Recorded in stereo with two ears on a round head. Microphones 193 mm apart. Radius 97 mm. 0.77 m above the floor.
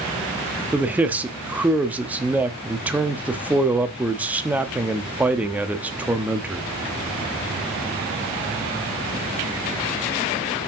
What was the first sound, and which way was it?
A man speaking, 5° right (ahead or behind).